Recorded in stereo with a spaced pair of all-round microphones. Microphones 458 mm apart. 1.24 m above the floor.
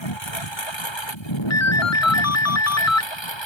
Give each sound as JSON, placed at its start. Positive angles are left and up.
{"t": 0.0, "sound": "a lawn mower", "side_deg": 65}
{"t": 1.5, "sound": "a ringtone", "side_deg": 35}